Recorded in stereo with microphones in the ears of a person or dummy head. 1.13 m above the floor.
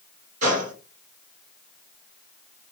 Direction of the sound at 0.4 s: 40° right (ahead or behind).